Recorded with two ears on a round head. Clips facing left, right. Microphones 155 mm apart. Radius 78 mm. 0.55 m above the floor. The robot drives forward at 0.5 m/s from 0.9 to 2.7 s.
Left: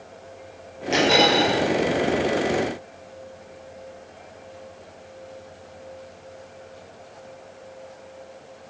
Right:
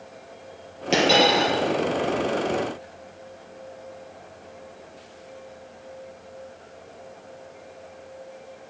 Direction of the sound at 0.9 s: 45° right (ahead or behind).